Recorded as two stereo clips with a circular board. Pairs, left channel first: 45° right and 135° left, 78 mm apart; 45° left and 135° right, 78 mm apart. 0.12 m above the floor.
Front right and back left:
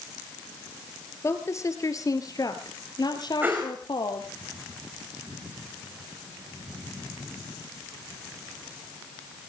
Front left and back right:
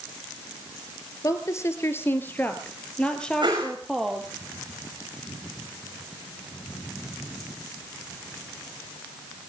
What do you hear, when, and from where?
1.2 s a woman speaking: 5° left, 1.9 m; by 4.3 s 45° right, 2.5 m
3.4 s a whoosh: 160° right, 5 m